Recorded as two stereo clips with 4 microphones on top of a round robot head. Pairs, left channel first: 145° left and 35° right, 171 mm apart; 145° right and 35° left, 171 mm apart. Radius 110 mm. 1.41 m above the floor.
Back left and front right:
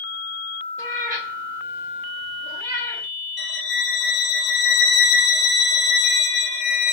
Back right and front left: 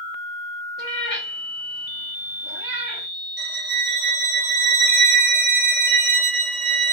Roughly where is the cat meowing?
Right.